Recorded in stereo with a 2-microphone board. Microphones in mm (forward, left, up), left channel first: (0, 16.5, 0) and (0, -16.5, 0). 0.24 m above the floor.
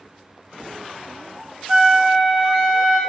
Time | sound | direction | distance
1.7 | a flute | 20° right (ahead or behind) | 0.6 m